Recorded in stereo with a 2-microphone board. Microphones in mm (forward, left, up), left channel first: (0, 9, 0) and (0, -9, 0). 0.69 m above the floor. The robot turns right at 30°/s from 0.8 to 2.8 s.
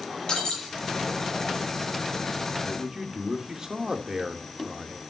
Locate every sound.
0.3 s breaking glass: 40° left (ahead or behind), 7 m
2.6 s a man speaking: 25° right (ahead or behind), 2 m; by 5.0 s 30° right (ahead or behind), 2 m